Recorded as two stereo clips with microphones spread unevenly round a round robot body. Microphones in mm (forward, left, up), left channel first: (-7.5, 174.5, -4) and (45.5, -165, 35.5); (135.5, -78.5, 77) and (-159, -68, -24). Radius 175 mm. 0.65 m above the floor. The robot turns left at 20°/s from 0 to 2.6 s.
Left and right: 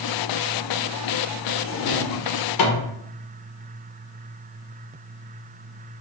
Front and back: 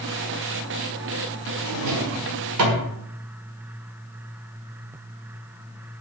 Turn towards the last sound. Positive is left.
turn(degrees=135)